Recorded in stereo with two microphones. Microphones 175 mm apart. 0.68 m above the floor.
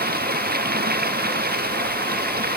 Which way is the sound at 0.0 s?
60° right (ahead or behind).